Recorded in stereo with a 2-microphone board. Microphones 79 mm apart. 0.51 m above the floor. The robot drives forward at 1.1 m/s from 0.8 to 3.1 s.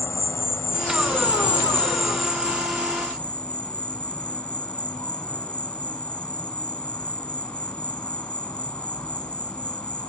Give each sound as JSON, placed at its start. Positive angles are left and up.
{"t": 0.0, "sound": "an insect", "side_deg": 30, "distance_m": 0.9}